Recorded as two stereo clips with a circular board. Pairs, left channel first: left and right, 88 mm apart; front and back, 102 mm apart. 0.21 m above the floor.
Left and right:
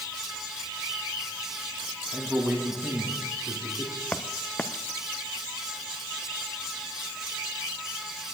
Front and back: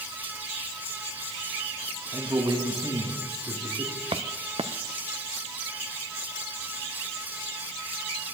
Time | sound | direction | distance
2.1 | a man speaking | 150° right | 2 m
4.1 | footsteps | 160° left | 0.8 m